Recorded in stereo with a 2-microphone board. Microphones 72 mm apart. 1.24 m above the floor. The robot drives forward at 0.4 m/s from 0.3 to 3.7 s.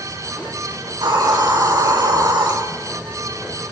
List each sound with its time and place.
0.9 s a hiss: 80° right, 5 m